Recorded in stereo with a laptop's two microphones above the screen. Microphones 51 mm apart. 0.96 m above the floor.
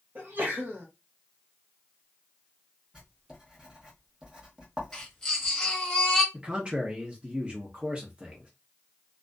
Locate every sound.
0.1 s a sneeze: 35° right (ahead or behind), 0.9 m
2.9 s writing: 15° right (ahead or behind), 0.9 m
4.9 s a baby crying: 10° left (ahead or behind), 1.1 m
6.3 s a man speaking: 20° right (ahead or behind), 0.9 m